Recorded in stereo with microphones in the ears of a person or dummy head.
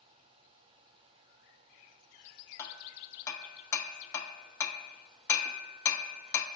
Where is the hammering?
15° left (ahead or behind), 0.7 m.